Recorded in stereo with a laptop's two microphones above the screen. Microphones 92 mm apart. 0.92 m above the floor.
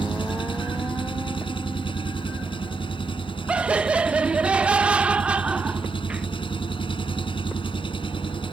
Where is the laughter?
15° right (ahead or behind).